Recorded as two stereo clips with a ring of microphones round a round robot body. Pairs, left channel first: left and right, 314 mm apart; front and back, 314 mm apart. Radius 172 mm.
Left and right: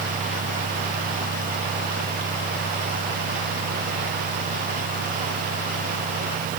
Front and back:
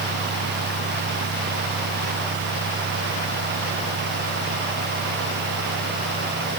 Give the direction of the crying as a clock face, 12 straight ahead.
No crying in this recording.